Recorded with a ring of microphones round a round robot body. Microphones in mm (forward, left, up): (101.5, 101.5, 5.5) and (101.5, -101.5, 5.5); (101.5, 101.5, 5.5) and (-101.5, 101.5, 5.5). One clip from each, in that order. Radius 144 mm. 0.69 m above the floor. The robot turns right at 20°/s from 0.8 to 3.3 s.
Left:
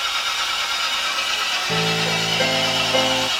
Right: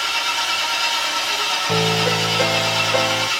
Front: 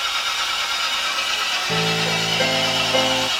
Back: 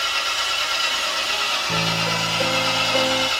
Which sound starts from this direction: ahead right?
A piano, at 1.7 s.